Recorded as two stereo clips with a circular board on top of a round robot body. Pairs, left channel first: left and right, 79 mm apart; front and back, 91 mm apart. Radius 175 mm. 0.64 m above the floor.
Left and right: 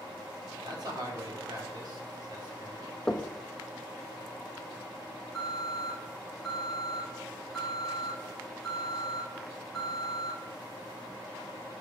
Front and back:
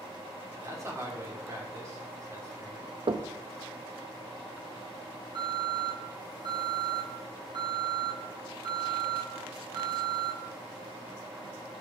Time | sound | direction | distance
0.6 | a man speaking | 120° right | 2.5 m
3.1 | knocking | 170° left | 0.7 m
5.3 | an alarm | straight behind | 2.5 m